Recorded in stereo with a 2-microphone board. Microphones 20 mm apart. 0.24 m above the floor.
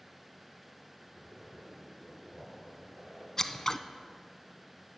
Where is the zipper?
55° right (ahead or behind), 4.5 m.